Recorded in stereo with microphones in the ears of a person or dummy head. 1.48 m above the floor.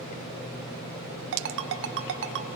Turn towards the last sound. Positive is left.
turn(degrees=-60)  # may be behind; listen again after turning